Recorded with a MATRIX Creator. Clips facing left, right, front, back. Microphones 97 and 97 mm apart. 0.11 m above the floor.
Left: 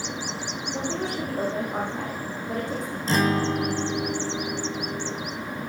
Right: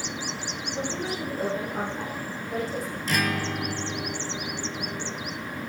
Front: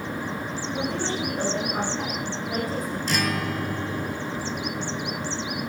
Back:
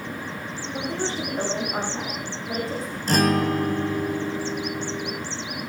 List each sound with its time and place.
0.7 s a woman speaking: 120° left, 9 m
3.1 s a guitar: 145° left, 0.6 m